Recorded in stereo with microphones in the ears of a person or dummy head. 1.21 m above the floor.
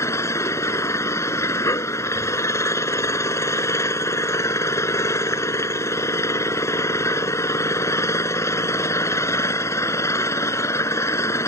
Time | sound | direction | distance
0.0 | an engine running | 15° left (ahead or behind) | ?